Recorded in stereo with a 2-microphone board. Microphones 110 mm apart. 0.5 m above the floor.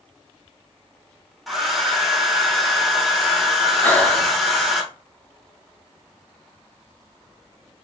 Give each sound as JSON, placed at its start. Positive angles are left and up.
{"t": 1.5, "sound": "a hair dryer", "side_deg": 0, "distance_m": 1.2}
{"t": 3.8, "sound": "breathing", "side_deg": 15, "distance_m": 1.0}